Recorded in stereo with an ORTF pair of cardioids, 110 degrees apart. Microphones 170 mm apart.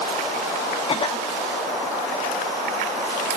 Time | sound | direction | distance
0.9 | a cough | 35° left | 0.8 m